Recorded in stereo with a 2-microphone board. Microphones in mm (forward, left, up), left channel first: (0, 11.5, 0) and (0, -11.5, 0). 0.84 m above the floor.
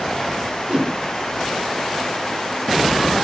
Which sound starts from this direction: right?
A whoosh, at 0.7 s.